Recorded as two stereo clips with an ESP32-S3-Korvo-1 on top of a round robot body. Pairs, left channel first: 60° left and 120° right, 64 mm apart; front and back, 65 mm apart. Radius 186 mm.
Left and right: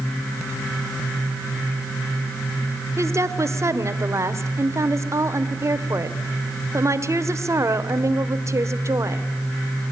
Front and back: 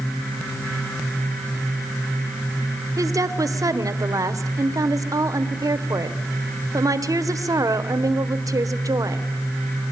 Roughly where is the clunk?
I don't hear a clunk.